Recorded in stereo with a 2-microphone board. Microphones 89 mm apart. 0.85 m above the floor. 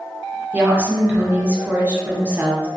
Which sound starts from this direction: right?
A woman speaking, at 0.5 s.